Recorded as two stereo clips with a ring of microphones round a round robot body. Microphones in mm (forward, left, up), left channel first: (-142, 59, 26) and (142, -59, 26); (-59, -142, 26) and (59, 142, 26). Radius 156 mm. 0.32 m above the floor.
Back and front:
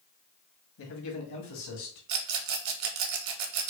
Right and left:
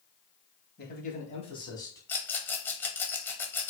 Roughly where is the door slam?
I don't hear a door slam.